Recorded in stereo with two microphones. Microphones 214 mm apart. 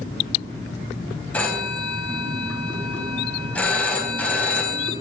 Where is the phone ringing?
5° left (ahead or behind), 2.5 m.